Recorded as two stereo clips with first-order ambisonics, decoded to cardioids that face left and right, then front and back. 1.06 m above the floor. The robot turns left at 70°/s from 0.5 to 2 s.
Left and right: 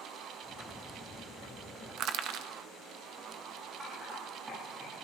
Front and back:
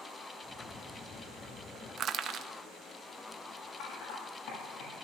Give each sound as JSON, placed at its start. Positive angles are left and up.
{"t": 2.0, "sound": "crushing", "azimuth_deg": -125, "distance_m": 1.0}
{"t": 3.8, "sound": "typing on a keyboard", "azimuth_deg": -15, "distance_m": 8.5}